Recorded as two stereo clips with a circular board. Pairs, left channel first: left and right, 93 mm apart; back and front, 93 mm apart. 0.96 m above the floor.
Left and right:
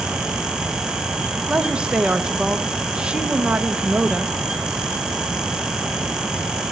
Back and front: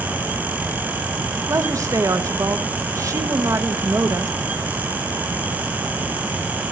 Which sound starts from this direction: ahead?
A woman speaking, at 1.5 s.